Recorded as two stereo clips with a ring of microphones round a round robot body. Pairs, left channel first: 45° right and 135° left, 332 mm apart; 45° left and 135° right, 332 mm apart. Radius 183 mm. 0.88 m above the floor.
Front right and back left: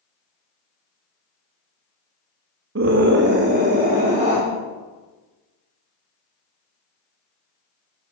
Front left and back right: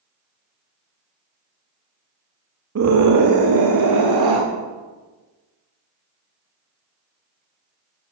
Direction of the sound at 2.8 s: 175° right.